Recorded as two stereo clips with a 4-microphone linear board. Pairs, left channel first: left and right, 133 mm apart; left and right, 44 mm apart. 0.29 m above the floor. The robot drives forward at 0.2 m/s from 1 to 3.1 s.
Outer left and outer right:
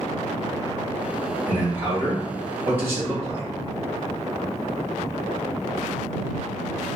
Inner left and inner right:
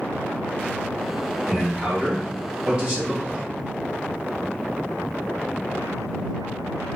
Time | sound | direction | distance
1.5 | a man speaking | 20° right (ahead or behind) | 1.3 m